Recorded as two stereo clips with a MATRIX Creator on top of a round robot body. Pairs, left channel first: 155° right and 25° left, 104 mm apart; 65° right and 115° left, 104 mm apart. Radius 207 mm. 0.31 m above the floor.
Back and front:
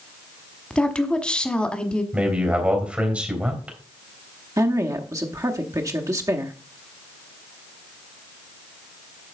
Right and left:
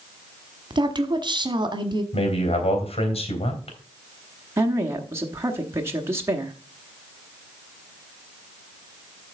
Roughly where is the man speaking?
Ahead right.